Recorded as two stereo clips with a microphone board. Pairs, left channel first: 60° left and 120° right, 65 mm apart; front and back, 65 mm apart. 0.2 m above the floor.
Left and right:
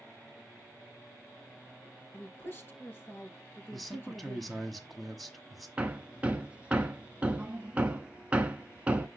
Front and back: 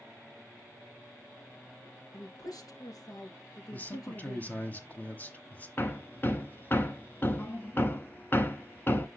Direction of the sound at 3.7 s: 25° right.